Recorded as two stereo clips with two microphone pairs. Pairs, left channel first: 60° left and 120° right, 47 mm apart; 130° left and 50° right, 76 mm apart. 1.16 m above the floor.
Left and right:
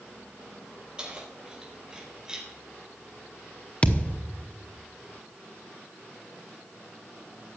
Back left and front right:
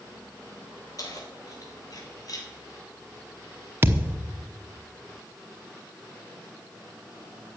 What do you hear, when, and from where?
1.0 s keys jangling: 170° left, 4 m; by 2.5 s 165° left, 3.5 m
3.8 s a thud: 5° left, 1.0 m